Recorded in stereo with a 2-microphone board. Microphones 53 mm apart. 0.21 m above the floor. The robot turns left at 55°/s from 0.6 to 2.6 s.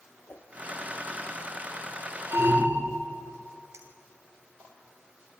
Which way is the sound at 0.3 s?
50° left (ahead or behind).